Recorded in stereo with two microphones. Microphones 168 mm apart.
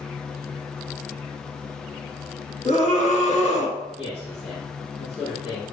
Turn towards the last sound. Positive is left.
turn(degrees=40)  # may be behind; listen again after turning